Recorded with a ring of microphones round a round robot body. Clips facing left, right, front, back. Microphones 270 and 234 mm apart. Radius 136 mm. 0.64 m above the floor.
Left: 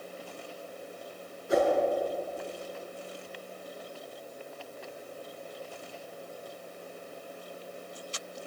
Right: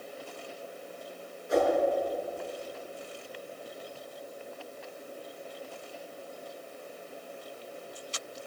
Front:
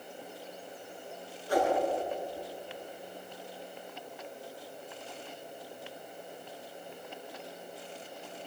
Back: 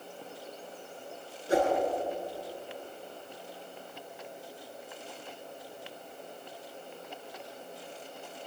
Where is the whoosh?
115° left, 7.5 m.